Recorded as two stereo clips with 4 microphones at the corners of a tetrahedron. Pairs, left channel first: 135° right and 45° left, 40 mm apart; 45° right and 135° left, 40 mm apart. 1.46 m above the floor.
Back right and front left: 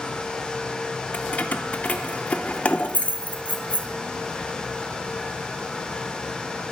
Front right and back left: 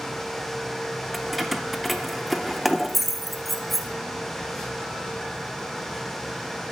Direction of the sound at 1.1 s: 135° right.